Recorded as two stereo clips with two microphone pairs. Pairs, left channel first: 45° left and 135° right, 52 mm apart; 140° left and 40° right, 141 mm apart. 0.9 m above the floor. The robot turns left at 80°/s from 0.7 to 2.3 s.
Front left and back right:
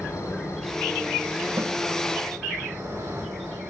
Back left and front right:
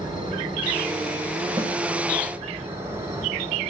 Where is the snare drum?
110° right, 1.4 m; by 1.8 s 120° right, 1.4 m.